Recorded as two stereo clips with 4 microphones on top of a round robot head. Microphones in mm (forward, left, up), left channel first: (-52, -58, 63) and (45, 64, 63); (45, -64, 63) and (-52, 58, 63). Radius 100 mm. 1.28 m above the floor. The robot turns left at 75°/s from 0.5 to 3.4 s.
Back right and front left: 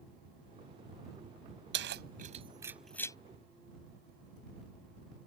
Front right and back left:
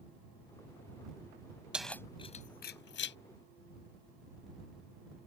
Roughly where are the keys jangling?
Ahead left.